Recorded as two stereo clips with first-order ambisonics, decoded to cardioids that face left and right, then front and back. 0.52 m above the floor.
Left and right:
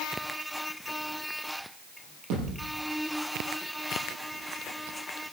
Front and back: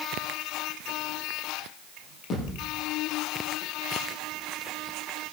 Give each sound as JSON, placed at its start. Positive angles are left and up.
{"t": 2.3, "sound": "a thud", "azimuth_deg": -55, "distance_m": 7.5}